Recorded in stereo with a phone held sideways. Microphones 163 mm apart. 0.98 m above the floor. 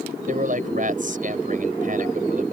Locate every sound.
0.3 s a man speaking: 55° right (ahead or behind)